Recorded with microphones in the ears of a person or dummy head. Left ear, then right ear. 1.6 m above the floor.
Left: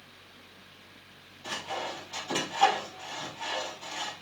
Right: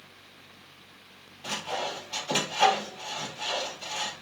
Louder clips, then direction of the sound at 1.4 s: Right 3 dB; 40° right (ahead or behind).